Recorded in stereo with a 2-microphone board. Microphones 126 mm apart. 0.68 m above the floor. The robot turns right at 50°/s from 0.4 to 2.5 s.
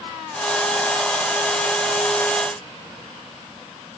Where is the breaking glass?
No breaking glass in this recording.